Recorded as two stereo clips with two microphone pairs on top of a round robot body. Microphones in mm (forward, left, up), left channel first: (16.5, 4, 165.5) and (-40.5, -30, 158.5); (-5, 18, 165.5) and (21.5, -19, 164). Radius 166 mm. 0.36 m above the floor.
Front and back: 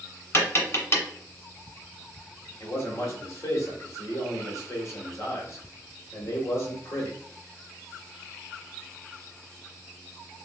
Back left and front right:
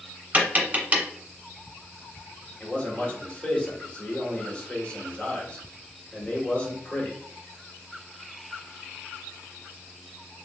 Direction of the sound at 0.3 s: 10° right.